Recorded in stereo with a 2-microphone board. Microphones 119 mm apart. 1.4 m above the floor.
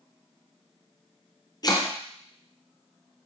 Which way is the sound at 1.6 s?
35° left (ahead or behind).